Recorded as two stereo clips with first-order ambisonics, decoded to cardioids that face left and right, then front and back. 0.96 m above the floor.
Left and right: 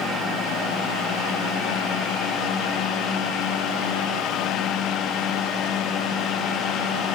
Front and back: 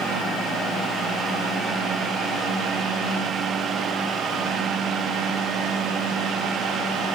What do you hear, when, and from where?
Only background noise.